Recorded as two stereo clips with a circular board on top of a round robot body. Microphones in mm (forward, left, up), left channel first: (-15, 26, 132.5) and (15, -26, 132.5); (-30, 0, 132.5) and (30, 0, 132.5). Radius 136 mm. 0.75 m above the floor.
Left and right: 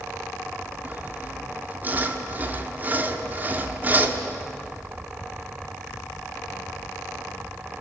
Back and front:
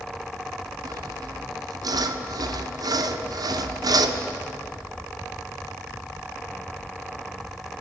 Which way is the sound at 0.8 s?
Straight ahead.